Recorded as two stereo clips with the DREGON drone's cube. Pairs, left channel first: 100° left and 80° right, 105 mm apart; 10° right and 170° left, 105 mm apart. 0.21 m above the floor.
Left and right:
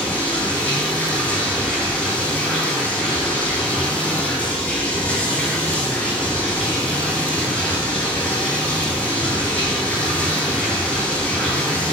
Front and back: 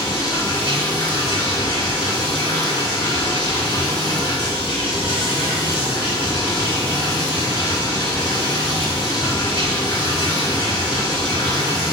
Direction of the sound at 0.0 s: 25° left.